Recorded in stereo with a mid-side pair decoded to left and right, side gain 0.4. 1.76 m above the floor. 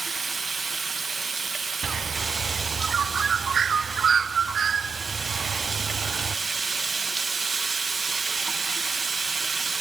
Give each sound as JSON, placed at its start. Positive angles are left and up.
{"t": 0.0, "sound": "running water", "azimuth_deg": -40, "distance_m": 1.8}
{"t": 1.8, "sound": "a bird", "azimuth_deg": -55, "distance_m": 0.8}